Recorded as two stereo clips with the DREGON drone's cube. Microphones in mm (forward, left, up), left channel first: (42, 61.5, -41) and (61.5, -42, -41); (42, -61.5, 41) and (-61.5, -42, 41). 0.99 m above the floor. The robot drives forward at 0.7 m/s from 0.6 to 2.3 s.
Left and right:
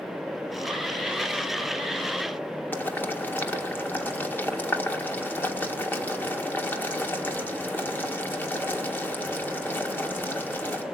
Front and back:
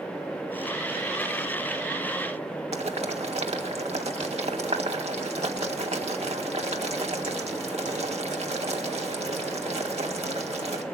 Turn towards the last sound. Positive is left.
turn(degrees=170)